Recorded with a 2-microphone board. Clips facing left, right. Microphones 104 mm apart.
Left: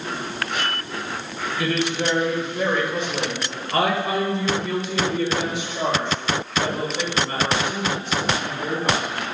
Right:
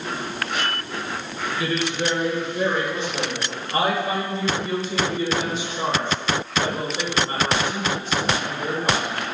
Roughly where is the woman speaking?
Left.